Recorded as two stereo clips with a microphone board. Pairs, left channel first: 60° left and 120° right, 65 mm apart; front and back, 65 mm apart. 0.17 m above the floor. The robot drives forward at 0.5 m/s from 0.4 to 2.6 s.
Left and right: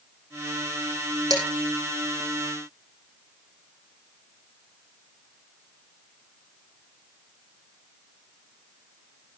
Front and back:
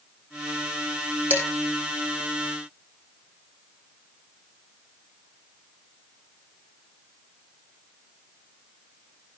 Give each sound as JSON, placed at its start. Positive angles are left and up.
{"t": 1.3, "sound": "dishes clattering", "azimuth_deg": -120, "distance_m": 5.5}